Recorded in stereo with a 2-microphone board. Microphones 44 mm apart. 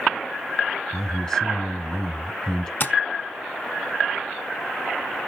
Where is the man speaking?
20° left (ahead or behind), 1.2 m.